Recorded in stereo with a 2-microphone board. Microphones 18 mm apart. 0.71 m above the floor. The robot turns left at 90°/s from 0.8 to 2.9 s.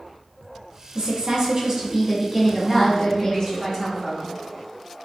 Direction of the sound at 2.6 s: 5° left (ahead or behind).